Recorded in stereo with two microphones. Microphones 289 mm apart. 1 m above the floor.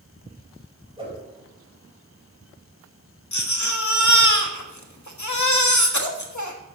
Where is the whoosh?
15° right (ahead or behind), 3.5 m.